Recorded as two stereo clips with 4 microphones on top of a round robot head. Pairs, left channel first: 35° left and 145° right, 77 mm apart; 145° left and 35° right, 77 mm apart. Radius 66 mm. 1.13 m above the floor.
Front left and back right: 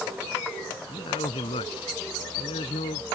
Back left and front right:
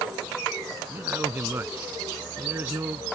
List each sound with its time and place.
0.9 s a man speaking: 30° left